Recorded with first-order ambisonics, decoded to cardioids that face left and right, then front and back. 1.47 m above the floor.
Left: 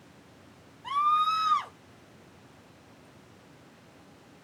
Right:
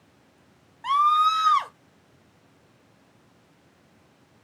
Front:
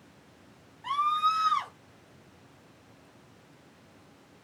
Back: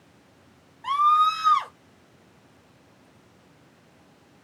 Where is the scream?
110° right, 1.0 m.